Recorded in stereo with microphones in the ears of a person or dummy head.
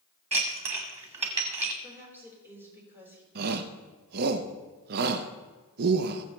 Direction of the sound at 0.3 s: 30° right (ahead or behind).